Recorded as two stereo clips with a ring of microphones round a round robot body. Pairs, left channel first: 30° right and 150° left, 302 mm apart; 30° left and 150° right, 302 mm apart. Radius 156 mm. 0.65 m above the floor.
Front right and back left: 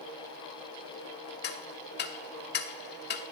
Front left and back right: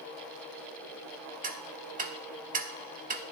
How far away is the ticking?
About 1.1 m.